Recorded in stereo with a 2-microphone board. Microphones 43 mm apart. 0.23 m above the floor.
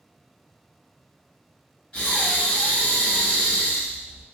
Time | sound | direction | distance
1.9 | breathing | 25° left (ahead or behind) | 1.3 m